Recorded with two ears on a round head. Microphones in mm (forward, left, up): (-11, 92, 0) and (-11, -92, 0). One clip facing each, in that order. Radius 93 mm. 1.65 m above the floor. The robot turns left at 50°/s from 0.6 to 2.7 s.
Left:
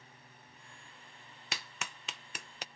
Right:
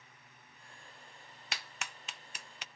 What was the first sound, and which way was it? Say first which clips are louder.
A clap: left 1 dB; 80° left.